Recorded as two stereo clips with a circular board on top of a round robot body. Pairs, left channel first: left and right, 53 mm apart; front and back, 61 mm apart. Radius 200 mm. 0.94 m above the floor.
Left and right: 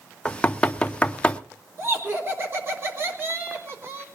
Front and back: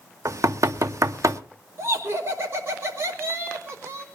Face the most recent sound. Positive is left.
turn(degrees=-135)